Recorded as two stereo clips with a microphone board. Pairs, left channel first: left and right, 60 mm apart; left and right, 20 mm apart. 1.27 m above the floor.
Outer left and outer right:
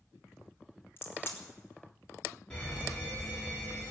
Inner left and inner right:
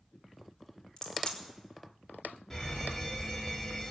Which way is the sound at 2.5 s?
20° left (ahead or behind).